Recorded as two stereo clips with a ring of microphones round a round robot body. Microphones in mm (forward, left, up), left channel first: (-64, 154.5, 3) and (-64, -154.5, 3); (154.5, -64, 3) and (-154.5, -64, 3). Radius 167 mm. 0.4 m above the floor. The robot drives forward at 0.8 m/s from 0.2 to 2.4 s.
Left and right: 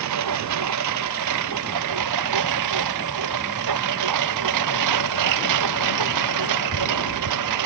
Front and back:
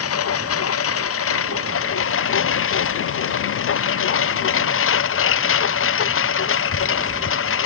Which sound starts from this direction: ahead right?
A lawn mower, at 0.0 s.